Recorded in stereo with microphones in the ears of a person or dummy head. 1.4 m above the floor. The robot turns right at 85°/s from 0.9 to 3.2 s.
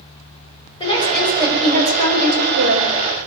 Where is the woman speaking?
150° left, 7 m; by 3.3 s 15° right, 7 m.